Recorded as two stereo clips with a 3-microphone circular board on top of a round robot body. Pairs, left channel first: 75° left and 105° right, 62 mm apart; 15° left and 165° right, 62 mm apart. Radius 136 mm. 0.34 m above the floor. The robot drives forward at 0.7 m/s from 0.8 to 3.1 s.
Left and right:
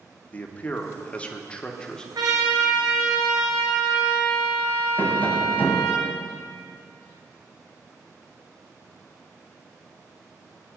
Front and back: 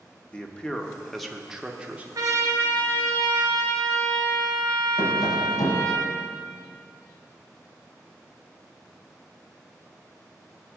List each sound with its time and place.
0.3 s a man speaking: 70° left, 1.4 m; by 2.0 s 145° left, 1.5 m
2.1 s a trumpet: 130° right, 2 m; by 6.0 s 140° right, 2.5 m
5.0 s tapping: 10° left, 1.6 m